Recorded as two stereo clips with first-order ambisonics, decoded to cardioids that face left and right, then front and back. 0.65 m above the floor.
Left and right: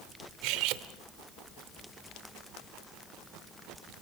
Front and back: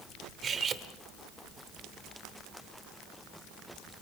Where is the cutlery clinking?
115° right, 0.9 m.